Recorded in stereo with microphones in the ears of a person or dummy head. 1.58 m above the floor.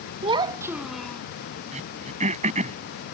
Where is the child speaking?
30° right (ahead or behind); by 1.2 s 10° left (ahead or behind).